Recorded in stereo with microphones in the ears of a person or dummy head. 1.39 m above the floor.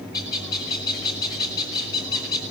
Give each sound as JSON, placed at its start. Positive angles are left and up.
{"t": 0.1, "sound": "a bird", "side_deg": 25, "distance_m": 5.0}